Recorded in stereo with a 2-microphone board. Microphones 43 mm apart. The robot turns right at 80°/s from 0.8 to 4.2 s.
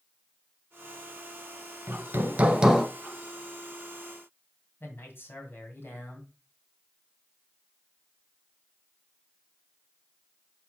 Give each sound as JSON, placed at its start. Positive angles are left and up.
{"t": 1.9, "sound": "hammering", "azimuth_deg": -75, "distance_m": 0.8}
{"t": 4.8, "sound": "a man speaking", "side_deg": 60, "distance_m": 2.0}